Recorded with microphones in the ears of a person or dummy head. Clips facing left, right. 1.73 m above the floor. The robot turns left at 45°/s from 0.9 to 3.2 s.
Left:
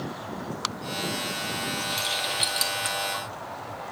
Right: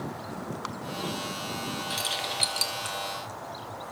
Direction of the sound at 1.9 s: 15° right (ahead or behind).